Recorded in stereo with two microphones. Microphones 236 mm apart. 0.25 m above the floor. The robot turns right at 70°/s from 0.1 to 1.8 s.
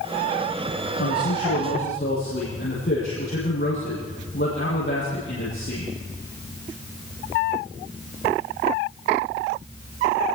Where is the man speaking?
65° left, 10 m; by 5.9 s 125° left, 10 m.